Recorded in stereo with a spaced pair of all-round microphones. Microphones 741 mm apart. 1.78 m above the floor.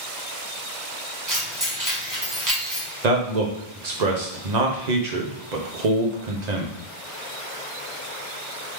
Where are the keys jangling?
25° right (ahead or behind), 1.2 m.